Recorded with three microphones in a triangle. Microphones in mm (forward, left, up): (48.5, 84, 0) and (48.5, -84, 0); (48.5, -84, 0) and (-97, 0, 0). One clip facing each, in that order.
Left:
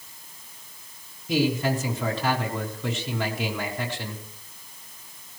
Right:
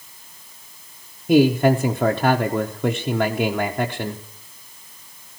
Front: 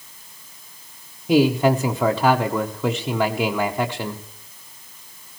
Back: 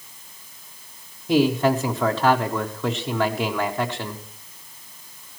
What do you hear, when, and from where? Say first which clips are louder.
1.3 s a man speaking: right 9 dB, front 2 dB; 105° right, 0.8 m